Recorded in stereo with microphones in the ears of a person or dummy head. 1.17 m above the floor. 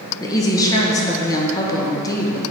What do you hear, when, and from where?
0.2 s a woman speaking: 20° left (ahead or behind), 1.1 m